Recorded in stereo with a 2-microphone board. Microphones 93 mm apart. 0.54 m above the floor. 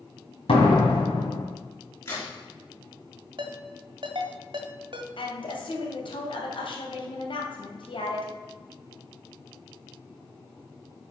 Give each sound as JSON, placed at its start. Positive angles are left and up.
{"t": 0.5, "sound": "a door slam", "side_deg": 75, "distance_m": 2.5}
{"t": 2.0, "sound": "a crack", "side_deg": 30, "distance_m": 4.5}
{"t": 3.4, "sound": "a ringtone", "side_deg": -65, "distance_m": 1.6}
{"t": 5.2, "sound": "a woman speaking", "side_deg": 65, "distance_m": 2.5}